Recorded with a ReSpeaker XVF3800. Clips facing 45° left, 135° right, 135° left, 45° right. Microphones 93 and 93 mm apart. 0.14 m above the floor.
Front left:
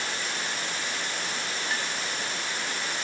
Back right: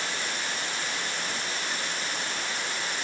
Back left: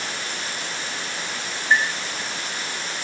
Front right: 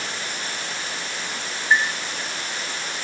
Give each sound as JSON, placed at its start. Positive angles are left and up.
{"t": 1.7, "sound": "a clink", "azimuth_deg": 40}